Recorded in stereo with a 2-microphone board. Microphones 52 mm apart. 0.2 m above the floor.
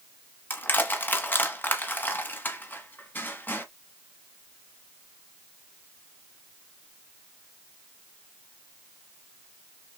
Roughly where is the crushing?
Left.